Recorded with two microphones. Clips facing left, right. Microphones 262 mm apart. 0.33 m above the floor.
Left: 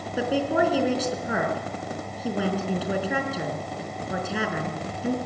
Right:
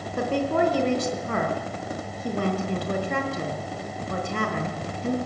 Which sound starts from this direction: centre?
A woman speaking, at 0.2 s.